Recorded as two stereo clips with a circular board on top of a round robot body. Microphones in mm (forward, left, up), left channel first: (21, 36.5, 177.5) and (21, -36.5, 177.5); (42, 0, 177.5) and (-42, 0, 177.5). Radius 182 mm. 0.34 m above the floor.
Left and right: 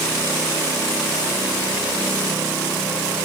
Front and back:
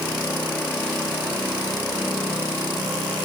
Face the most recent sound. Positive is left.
No sound to turn to.